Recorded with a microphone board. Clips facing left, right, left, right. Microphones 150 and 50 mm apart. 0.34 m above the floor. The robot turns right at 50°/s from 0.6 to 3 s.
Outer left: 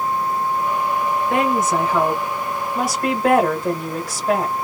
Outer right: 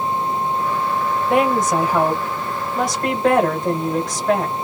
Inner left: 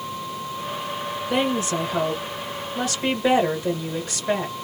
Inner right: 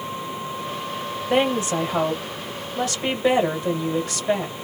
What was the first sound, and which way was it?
A woman speaking, 20° right (ahead or behind).